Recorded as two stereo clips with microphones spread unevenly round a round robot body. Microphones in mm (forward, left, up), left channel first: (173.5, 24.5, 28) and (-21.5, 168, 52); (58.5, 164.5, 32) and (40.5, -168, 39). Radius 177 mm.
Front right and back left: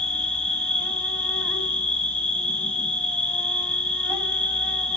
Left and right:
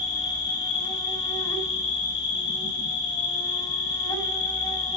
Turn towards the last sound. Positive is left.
turn(degrees=30)